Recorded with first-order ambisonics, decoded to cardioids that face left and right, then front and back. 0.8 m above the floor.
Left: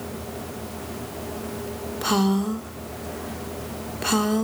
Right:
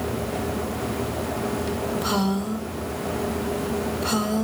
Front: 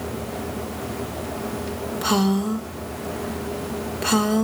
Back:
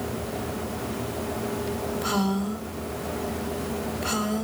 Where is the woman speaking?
40° left, 1.7 m.